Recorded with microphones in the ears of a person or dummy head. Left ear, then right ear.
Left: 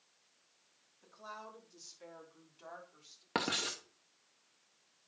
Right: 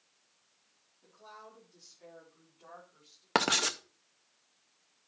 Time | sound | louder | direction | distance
1.0 | a woman speaking | left 3 dB | 70° left (ahead or behind) | 3.5 m
3.4 | writing | right 7 dB | 30° right (ahead or behind) | 0.6 m